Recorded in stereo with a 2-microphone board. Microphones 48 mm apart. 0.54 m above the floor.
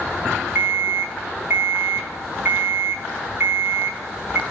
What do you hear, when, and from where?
0.6 s an alarm clock: 50° right (ahead or behind), 1.8 m